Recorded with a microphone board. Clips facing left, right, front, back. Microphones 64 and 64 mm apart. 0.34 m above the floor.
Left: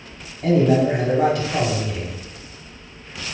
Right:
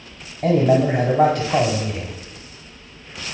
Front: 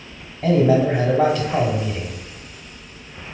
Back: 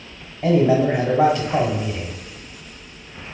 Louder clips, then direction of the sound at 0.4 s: Even, even; 95° right.